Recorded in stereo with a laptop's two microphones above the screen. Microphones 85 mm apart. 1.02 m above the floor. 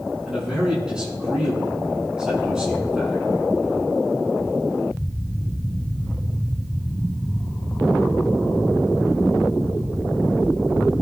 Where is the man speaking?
10° right (ahead or behind), 8.5 m.